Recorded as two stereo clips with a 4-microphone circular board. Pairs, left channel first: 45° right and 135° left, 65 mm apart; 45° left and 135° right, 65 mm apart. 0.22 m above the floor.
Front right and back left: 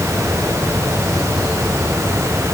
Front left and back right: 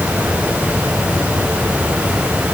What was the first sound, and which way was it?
Only background noise.